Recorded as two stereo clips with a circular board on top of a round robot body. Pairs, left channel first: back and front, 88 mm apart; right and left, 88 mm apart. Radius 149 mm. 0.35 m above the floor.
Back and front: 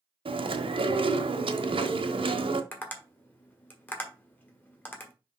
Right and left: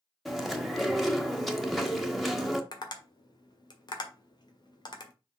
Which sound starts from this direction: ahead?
Chewing, at 0.2 s.